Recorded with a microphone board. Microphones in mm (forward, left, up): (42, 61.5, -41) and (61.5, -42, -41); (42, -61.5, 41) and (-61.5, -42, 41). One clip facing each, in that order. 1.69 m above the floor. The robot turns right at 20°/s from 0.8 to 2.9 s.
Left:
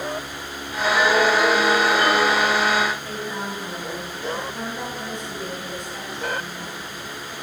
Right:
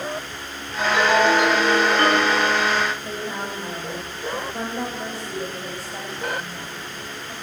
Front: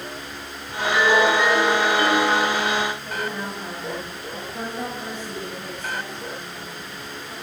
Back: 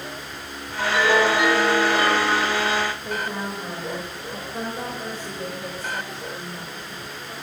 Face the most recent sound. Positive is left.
turn(degrees=-135)